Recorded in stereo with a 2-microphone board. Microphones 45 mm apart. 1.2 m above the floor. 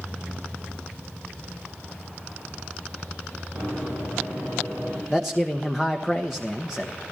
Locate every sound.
3.5 s running footsteps: 60° right (ahead or behind), 8.5 m
5.1 s a man speaking: 5° right (ahead or behind), 1.0 m